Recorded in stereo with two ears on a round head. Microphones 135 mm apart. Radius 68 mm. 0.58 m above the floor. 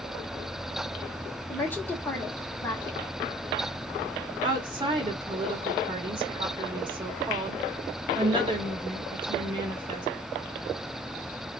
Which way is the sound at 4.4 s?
30° right (ahead or behind).